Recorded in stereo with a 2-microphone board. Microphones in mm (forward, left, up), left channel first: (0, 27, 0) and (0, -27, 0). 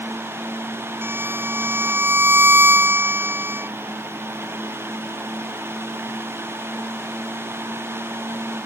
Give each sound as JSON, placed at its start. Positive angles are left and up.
{"t": 1.0, "sound": "a violin", "side_deg": -40}